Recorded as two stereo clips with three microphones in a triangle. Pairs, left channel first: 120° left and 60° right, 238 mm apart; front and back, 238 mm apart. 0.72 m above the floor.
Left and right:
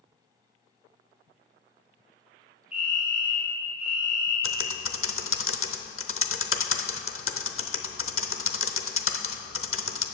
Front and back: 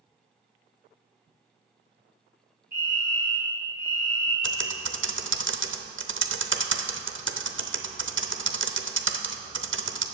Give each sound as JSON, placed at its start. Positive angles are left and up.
{"t": 2.7, "sound": "a fire alarm", "azimuth_deg": -145, "distance_m": 3.0}
{"t": 4.4, "sound": "typing on a keyboard", "azimuth_deg": 145, "distance_m": 0.7}